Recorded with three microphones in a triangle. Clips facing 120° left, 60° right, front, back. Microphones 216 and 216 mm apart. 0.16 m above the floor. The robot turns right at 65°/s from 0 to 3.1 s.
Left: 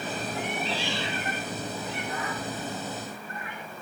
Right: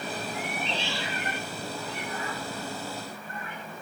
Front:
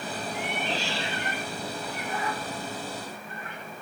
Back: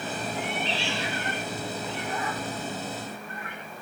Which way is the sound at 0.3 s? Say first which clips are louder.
Left 2 dB, front 1 dB; 15° left.